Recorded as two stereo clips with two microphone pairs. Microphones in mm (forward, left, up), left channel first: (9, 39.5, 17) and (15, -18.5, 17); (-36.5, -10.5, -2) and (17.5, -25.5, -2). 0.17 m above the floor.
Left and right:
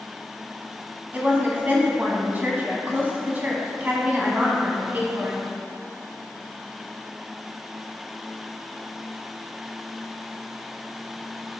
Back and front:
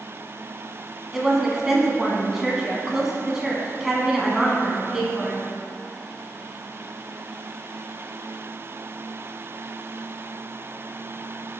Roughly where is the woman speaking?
Right.